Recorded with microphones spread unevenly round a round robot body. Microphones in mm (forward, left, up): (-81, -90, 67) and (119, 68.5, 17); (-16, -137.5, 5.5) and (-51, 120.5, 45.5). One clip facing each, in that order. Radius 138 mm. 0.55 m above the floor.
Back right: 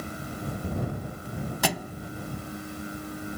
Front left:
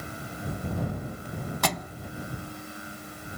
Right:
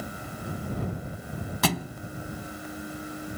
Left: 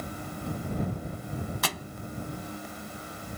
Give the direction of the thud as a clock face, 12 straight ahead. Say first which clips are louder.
Back right 2 dB, right 9 dB; 2 o'clock.